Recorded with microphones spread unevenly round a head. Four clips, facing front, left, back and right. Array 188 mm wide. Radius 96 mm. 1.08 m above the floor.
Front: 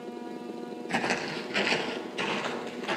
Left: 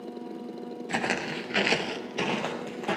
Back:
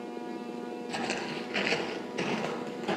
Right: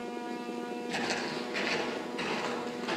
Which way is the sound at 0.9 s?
30° left.